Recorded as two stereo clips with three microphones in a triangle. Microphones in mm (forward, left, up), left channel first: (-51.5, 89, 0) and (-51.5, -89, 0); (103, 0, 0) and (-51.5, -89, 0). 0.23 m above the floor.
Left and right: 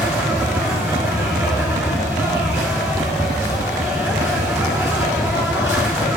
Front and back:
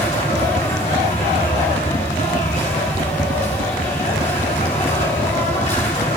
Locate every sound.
0.0 s an insect: 20° right, 4 m